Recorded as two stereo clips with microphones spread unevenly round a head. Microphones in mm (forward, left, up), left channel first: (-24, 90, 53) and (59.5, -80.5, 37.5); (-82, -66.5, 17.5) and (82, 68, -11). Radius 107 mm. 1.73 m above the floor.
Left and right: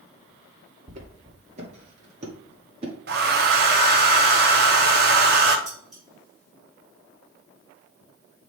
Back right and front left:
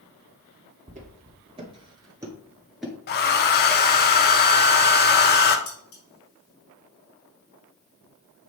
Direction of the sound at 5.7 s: 155° right.